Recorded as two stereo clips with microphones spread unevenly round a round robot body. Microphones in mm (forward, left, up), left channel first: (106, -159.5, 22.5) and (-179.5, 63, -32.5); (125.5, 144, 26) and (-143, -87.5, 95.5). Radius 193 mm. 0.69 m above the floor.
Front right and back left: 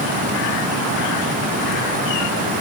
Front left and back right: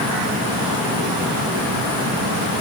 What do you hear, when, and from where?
Only background noise.